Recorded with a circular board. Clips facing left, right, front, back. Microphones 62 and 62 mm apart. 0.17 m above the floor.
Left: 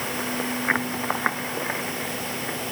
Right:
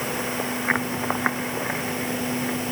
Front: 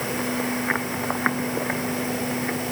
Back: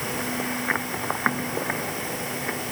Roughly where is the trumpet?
I don't hear a trumpet.